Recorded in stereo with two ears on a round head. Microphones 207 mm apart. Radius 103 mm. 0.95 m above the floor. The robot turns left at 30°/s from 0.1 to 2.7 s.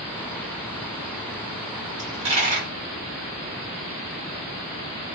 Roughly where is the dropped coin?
Centre.